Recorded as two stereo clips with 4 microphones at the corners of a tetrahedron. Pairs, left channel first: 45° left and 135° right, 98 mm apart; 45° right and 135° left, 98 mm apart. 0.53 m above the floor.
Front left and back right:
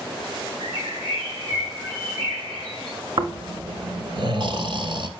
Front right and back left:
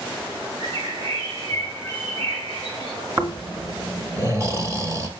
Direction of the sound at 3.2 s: 165° right.